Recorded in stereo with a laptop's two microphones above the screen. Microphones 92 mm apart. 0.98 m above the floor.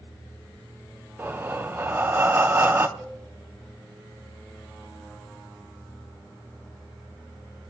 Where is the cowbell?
5° right (ahead or behind), 4.5 m.